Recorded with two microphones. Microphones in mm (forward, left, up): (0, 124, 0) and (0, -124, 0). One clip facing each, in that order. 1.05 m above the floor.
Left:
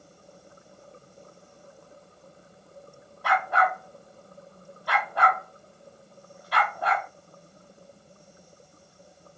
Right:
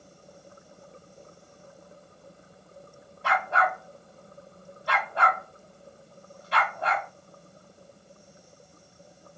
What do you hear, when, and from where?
3.2 s a dog barking: 25° right (ahead or behind), 1.3 m